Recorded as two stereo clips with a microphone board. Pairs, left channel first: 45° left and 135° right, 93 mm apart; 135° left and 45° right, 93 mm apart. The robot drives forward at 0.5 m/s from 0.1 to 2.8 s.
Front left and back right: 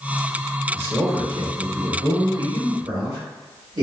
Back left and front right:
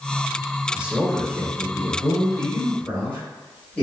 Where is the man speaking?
95° right, 1.0 m; by 3.8 s 155° right, 1.4 m.